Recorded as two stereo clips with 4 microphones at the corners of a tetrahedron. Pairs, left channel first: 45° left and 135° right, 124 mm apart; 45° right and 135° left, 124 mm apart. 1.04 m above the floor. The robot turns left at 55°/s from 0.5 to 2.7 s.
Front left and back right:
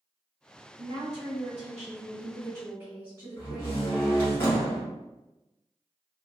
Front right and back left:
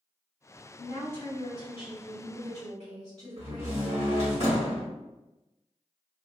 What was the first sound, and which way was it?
A woman speaking, 95° right.